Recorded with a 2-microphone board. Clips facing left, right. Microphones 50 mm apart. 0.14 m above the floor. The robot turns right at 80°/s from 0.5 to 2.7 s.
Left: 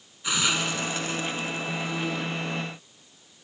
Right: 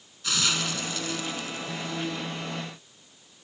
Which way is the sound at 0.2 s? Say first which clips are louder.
Left 2 dB; 20° left (ahead or behind).